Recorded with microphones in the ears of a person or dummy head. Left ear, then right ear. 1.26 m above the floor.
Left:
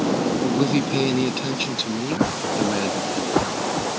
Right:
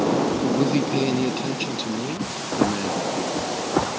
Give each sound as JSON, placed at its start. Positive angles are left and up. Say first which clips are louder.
{"t": 0.4, "sound": "a man speaking", "louder": "even", "side_deg": 10}